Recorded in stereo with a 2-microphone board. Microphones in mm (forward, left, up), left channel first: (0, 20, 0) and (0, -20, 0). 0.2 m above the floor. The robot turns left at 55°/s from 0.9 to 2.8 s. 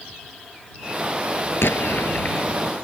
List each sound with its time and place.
1.6 s an explosion: 90° left; by 2.5 s 45° left